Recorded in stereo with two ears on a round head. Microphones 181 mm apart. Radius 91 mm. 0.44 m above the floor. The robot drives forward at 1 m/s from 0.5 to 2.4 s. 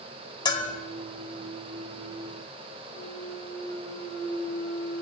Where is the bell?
25° left (ahead or behind), 1.5 m.